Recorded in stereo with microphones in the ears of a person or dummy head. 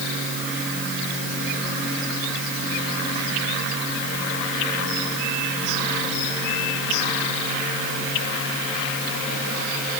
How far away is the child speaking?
No child speaking in this recording.